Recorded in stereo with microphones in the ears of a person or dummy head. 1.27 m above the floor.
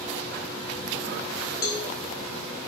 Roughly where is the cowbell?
Left.